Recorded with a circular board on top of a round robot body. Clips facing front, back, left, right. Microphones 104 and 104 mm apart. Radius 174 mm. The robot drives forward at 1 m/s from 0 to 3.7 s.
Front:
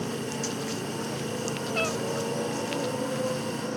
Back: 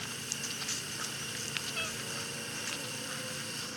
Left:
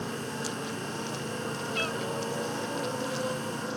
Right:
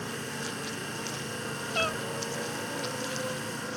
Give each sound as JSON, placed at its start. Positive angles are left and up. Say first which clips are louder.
{"t": 0.0, "sound": "a motorcycle", "louder": "front 14 dB, left 2 dB", "azimuth_deg": 20}
{"t": 1.7, "sound": "a cat meowing", "louder": "front 15 dB, right 5 dB", "azimuth_deg": -35}